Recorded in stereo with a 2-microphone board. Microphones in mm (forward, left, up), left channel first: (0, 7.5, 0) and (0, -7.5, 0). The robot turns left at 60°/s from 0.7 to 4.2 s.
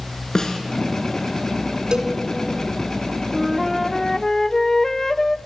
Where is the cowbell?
60° right (ahead or behind), 2.5 m; by 2.2 s 45° right (ahead or behind), 2.5 m.